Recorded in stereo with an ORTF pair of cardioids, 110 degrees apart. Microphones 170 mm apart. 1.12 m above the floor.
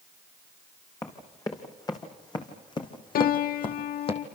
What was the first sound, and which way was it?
Running footsteps, 20° left.